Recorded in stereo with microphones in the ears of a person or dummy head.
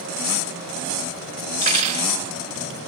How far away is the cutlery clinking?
About 2 m.